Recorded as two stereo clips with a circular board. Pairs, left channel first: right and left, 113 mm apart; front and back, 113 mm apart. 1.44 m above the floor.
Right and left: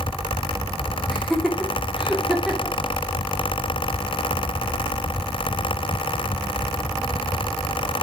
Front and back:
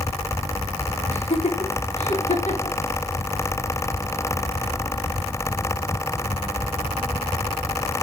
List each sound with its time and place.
1.1 s laughter: straight ahead, 4 m; by 2.8 s 5° left, 2.5 m